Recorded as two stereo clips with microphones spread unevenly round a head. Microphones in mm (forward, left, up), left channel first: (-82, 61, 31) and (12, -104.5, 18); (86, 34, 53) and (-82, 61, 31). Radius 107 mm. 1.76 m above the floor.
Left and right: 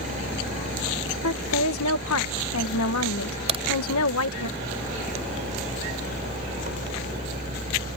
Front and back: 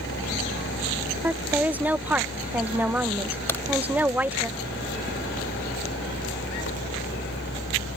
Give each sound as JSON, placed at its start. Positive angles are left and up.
{"t": 0.0, "sound": "a machine running", "azimuth_deg": 0}
{"t": 1.2, "sound": "a woman speaking", "azimuth_deg": 90}
{"t": 3.5, "sound": "a crack", "azimuth_deg": -50}